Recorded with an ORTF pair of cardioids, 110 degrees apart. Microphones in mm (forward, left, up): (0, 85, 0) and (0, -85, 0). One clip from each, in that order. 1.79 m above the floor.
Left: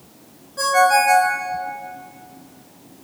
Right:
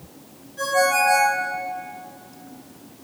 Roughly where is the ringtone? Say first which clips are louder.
Left 4 dB; ahead left.